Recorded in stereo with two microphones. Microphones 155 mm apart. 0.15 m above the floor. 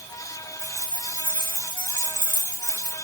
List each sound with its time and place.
0.6 s keys jangling: 55° right (ahead or behind), 8 m; by 2.9 s 60° right (ahead or behind), 4.5 m